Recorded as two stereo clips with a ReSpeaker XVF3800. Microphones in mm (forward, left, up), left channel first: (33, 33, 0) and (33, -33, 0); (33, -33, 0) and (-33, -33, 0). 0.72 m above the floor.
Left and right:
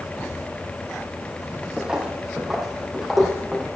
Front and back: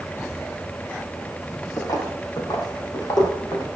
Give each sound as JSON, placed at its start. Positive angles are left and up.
{"t": 1.8, "sound": "footsteps", "azimuth_deg": -15, "distance_m": 2.0}